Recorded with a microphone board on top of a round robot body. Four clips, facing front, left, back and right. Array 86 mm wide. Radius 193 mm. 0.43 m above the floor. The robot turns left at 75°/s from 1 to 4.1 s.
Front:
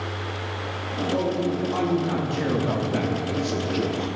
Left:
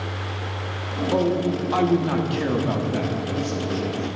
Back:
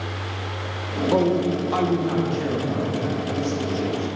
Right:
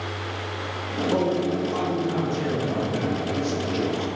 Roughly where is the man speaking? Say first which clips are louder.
Left 2 dB, back 5 dB; behind.